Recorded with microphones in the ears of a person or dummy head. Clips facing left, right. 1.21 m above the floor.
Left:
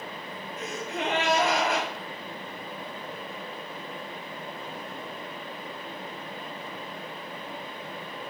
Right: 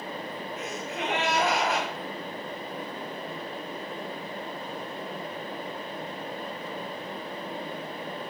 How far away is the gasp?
About 5 m.